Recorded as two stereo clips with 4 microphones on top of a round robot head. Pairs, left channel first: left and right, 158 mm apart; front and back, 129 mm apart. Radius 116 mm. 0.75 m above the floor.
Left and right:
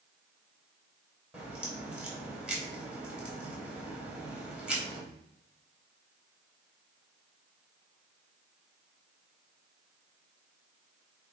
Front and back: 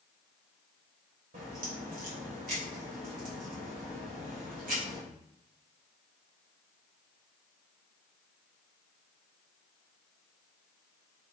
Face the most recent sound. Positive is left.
turn(degrees=-175)